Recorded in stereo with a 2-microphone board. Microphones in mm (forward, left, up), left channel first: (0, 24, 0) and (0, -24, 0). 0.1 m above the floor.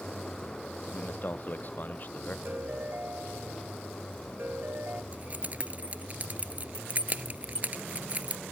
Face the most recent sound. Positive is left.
turn(degrees=-35)  # may be behind; listen again after turning